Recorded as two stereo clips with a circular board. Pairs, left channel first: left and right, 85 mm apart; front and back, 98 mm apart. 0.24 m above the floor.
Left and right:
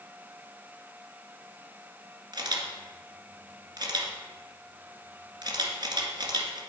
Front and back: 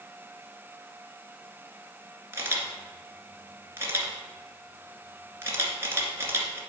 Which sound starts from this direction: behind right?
A camera shutter, at 2.3 s.